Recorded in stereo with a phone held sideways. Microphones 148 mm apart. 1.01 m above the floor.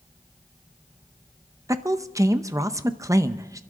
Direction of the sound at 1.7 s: 20° right (ahead or behind).